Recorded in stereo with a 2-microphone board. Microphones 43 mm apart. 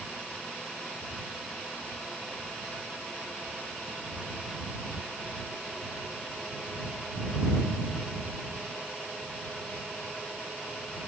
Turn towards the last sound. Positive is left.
No sound to turn to.